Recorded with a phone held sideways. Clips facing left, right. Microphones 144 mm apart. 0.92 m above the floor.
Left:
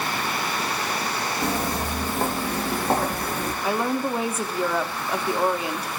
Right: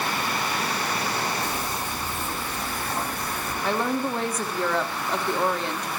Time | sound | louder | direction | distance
1.4 | footsteps | left 4 dB | 70° left (ahead or behind) | 3.5 m
3.6 | a woman speaking | even | 10° left (ahead or behind) | 1.9 m